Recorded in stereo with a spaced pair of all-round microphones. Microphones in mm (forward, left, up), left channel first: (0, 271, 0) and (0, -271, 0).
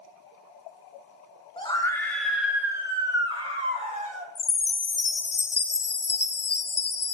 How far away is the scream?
About 1.7 m.